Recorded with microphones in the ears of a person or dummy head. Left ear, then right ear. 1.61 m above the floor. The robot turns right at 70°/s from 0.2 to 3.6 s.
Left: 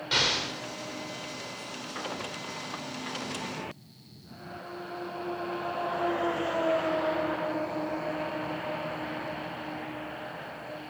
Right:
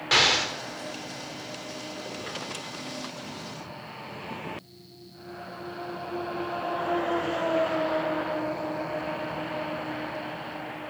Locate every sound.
0.1 s an explosion: 30° right (ahead or behind), 0.6 m; by 0.5 s 55° right (ahead or behind), 0.6 m